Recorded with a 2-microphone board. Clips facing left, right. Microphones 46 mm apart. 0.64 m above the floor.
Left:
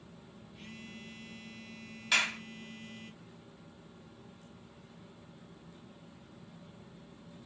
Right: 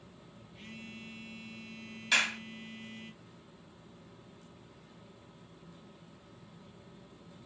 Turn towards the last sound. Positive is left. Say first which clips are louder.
# right 1 dB
turn(degrees=5)  # may be behind; listen again after turning